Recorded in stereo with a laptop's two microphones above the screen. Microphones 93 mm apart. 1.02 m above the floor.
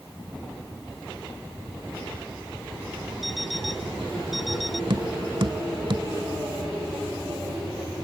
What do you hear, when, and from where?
3.2 s an alarm clock: centre (ahead or behind)
4.9 s tapping: 65° right (ahead or behind)